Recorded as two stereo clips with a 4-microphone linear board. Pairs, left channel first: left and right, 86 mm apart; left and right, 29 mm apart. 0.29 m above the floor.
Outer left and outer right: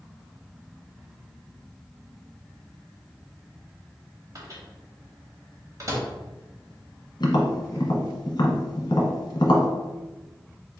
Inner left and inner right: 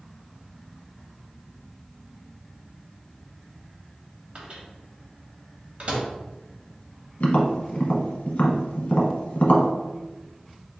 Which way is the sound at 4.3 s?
40° right (ahead or behind).